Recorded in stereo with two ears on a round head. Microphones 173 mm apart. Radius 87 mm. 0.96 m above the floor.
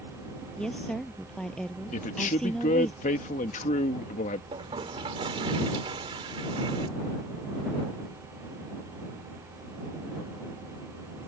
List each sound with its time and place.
0.6 s a woman speaking: 5° left (ahead or behind)
1.9 s a man speaking: 40° left (ahead or behind)
4.5 s a toilet flushing: 25° right (ahead or behind)